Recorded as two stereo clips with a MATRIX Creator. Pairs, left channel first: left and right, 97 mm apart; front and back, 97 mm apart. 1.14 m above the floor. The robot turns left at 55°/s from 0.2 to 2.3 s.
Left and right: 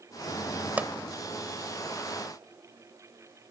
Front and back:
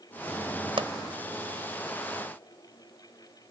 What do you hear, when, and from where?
0.8 s a pop: 160° right; by 0.9 s 170° right